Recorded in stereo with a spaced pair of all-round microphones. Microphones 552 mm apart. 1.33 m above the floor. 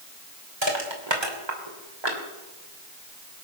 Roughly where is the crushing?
Right.